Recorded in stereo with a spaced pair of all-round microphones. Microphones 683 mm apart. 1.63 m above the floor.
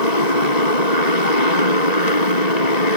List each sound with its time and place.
0.0 s a motorcycle: 75° left (ahead or behind)